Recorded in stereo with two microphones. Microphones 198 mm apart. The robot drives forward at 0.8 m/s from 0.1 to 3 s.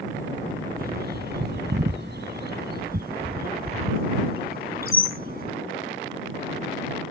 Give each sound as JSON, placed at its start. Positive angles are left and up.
{"t": 0.8, "sound": "a bird", "side_deg": -50}